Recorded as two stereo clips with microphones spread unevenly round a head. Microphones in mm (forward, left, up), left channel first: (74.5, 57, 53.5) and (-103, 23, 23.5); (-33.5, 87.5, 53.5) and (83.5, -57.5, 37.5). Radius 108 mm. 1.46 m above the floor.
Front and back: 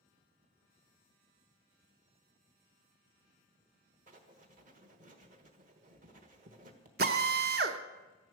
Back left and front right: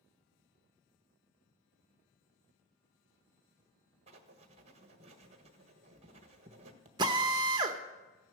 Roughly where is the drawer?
I don't hear a drawer.